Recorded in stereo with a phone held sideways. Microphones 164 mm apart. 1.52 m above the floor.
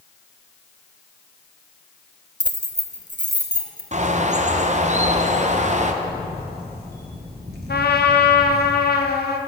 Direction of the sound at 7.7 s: 80° left.